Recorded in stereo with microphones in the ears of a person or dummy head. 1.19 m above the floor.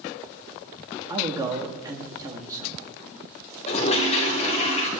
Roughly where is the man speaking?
Right.